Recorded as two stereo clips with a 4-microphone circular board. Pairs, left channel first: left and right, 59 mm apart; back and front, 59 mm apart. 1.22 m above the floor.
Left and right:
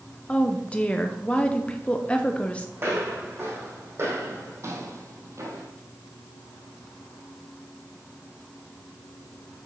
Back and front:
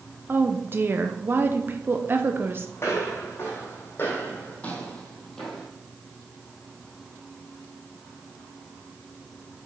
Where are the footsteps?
140° right, 3.5 m; by 5.7 s 95° right, 2 m.